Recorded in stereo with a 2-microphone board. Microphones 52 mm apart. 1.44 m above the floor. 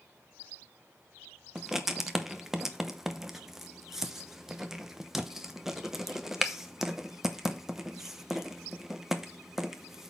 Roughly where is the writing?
Centre.